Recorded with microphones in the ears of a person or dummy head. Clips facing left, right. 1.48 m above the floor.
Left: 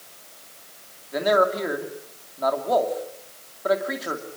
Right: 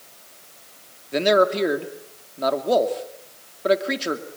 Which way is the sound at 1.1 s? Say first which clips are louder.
Right 3 dB; 35° right (ahead or behind).